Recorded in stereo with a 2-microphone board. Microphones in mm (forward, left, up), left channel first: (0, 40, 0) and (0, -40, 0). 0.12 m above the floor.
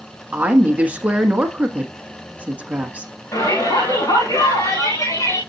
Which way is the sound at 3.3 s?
45° left (ahead or behind).